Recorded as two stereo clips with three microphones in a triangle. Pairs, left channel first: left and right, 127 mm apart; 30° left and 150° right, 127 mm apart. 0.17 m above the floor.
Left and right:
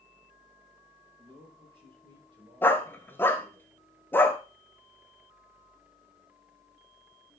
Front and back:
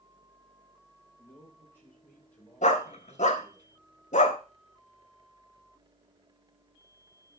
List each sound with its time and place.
1.2 s a man speaking: 40° right, 6 m; by 3.6 s 55° right, 6 m
2.6 s a dog barking: 20° left, 0.9 m